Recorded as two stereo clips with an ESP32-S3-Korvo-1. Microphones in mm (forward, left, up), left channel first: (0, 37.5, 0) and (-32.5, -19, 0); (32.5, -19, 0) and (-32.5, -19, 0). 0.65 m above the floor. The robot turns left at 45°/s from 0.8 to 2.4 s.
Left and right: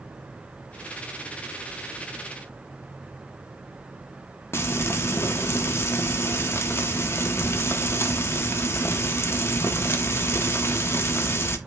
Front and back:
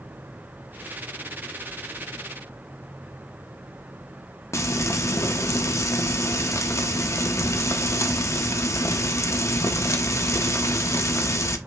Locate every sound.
4.5 s frying: 25° left, 0.7 m